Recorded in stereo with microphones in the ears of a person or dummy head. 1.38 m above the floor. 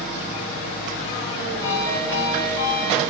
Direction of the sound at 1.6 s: 15° left (ahead or behind).